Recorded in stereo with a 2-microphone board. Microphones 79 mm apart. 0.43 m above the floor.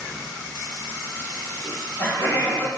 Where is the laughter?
30° left (ahead or behind), 1.4 m.